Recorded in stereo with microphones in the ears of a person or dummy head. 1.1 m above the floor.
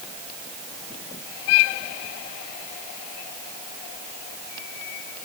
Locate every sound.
Only background noise.